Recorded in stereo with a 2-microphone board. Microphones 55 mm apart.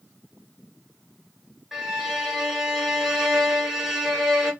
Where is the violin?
5° right (ahead or behind), 1.1 m.